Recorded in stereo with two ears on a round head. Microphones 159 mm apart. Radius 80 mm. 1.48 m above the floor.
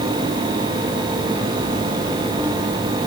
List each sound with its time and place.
Only background noise.